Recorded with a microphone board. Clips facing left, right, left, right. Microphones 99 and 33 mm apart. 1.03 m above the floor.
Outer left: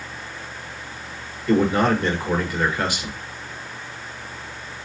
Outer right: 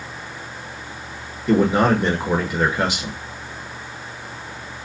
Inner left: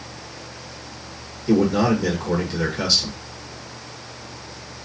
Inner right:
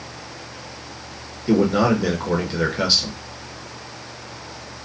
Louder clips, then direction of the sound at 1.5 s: Outer right 2 dB, inner right 1 dB; 20° right (ahead or behind).